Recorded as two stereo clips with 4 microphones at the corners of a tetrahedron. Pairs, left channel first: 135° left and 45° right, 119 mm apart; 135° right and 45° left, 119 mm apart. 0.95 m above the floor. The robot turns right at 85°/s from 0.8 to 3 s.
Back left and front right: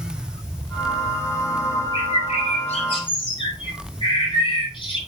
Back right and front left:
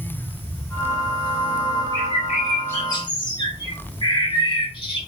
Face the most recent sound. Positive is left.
turn(degrees=180)